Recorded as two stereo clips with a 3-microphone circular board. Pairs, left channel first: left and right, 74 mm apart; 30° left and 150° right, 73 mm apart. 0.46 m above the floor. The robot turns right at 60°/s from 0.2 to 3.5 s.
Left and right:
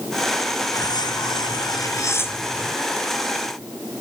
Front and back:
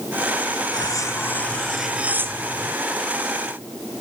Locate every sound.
0.7 s cutlery clinking: 60° left; by 2.8 s straight behind